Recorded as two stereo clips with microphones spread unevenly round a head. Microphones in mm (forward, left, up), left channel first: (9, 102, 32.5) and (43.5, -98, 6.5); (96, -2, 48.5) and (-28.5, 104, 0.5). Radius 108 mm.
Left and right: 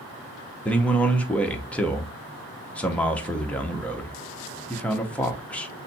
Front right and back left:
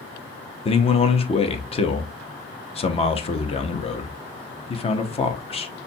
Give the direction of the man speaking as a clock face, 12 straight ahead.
12 o'clock.